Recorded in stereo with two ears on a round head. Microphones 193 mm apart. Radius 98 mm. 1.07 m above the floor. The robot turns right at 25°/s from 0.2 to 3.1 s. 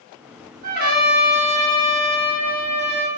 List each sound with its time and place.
0.6 s a trumpet: 135° right, 1.5 m; by 3.1 s 75° right, 1.5 m